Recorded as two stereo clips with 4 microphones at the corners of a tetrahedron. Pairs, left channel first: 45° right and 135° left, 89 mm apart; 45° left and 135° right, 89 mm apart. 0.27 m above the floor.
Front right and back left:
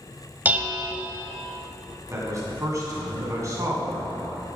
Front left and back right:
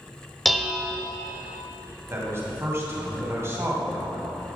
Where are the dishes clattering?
135° left, 0.7 m.